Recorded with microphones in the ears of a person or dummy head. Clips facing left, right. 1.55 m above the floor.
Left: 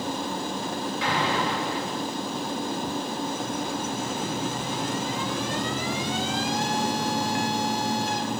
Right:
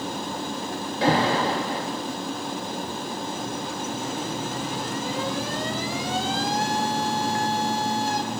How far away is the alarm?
About 3 m.